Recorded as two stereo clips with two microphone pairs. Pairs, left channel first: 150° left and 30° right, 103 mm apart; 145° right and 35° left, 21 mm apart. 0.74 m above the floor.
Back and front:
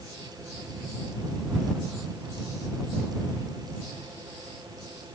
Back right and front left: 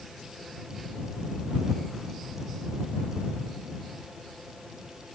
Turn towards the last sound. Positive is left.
No sound to turn to.